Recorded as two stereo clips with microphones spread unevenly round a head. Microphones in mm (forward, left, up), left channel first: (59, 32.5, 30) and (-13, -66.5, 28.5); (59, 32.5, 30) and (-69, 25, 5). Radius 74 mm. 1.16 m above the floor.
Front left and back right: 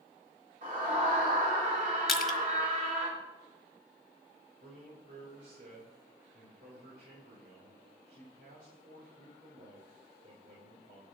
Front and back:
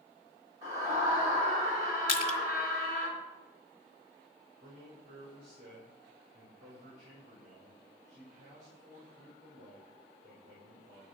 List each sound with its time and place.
0.6 s a scream: 110° right, 3.5 m
2.1 s crushing: 35° right, 1.4 m
4.6 s a man speaking: 135° right, 3.5 m